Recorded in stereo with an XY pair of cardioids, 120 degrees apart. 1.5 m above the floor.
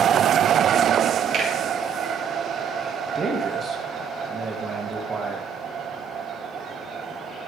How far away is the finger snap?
About 4 m.